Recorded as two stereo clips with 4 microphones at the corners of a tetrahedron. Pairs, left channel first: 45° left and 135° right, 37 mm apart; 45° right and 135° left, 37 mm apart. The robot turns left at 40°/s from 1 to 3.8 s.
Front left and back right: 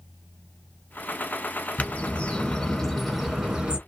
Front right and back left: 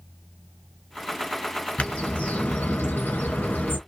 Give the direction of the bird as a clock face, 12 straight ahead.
12 o'clock.